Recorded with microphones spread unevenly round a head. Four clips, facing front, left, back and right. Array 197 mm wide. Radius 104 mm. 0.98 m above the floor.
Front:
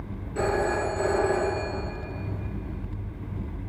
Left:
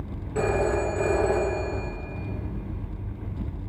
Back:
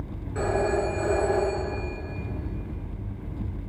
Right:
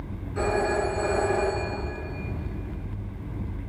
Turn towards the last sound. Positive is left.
turn(degrees=110)